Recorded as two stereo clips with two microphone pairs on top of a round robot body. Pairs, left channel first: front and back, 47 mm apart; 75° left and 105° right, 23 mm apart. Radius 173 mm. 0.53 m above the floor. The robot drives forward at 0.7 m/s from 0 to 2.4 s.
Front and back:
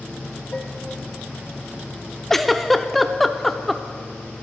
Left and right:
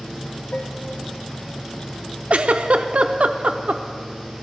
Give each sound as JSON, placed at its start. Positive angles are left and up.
{"t": 0.5, "sound": "dishes clattering", "azimuth_deg": 60, "distance_m": 1.0}
{"t": 2.3, "sound": "a giggle", "azimuth_deg": -80, "distance_m": 0.5}